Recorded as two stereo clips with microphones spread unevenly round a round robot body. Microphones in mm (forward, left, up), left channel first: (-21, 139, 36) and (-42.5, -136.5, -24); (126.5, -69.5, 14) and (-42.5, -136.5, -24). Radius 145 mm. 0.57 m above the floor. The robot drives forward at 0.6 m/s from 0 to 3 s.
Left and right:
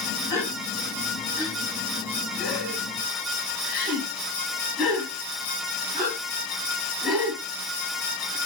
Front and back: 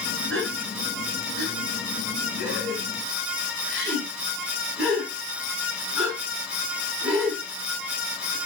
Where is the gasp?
170° left, 2.5 m; by 8.4 s 175° left, 4.5 m.